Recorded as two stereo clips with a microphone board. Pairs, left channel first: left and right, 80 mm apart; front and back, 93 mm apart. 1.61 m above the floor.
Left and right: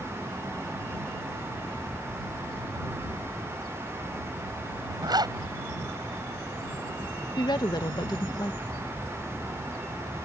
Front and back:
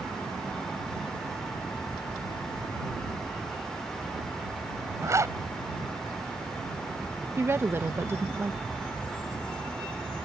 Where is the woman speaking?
115° left.